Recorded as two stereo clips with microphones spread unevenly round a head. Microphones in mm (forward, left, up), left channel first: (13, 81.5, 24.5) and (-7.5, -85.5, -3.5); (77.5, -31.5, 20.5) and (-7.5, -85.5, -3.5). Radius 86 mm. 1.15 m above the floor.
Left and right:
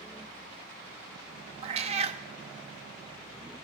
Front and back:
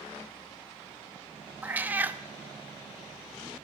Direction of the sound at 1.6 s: 65° right.